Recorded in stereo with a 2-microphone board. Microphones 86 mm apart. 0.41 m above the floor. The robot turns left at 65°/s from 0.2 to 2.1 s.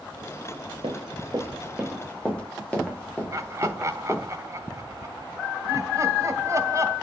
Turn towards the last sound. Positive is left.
turn(degrees=-35)  # may be behind; listen again after turning